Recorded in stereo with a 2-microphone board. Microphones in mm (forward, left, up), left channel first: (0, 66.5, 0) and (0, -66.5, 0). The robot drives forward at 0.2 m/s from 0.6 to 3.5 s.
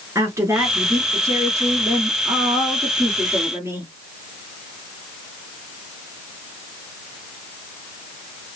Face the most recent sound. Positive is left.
turn(degrees=-20)  # may be behind; listen again after turning